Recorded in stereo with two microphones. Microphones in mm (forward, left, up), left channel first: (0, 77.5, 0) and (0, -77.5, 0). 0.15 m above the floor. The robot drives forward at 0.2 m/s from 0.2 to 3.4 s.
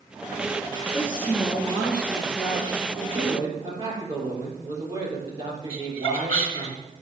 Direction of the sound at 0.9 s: 10° left (ahead or behind).